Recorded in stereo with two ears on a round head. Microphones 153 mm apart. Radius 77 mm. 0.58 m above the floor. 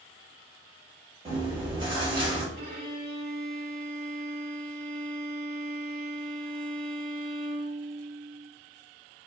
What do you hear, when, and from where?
1.2 s chewing: 30° right (ahead or behind), 1.2 m
2.6 s a violin: 50° right (ahead or behind), 1.0 m